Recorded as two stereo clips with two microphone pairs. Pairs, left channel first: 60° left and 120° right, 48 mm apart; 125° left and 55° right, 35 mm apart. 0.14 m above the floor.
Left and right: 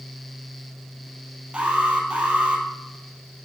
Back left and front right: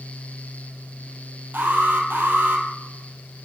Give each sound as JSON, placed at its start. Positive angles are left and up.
{"t": 1.5, "sound": "an alarm", "azimuth_deg": -55, "distance_m": 2.5}